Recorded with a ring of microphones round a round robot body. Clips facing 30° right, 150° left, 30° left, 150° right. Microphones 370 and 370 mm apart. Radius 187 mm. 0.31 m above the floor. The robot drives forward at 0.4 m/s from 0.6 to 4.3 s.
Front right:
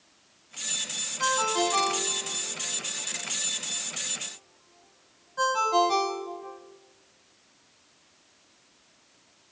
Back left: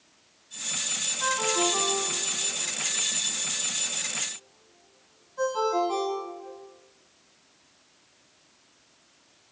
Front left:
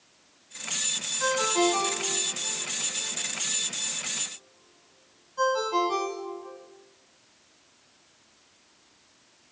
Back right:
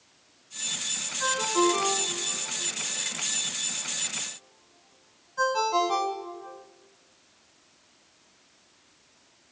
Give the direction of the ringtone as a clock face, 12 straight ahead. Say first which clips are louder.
Even, even; 1 o'clock.